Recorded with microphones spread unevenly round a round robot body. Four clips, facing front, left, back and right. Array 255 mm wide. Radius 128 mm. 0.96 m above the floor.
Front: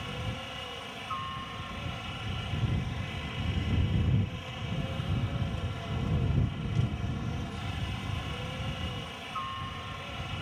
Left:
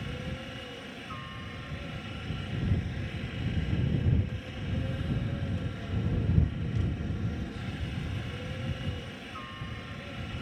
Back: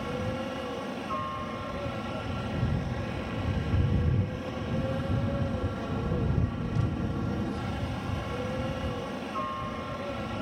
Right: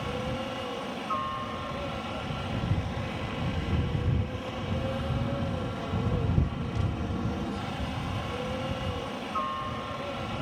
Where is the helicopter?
155° right.